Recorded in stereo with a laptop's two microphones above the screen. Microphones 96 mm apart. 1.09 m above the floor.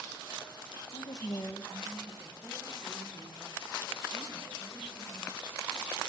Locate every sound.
0.9 s a woman speaking: 65° left (ahead or behind), 0.7 m; by 5.3 s 10° right (ahead or behind), 6.5 m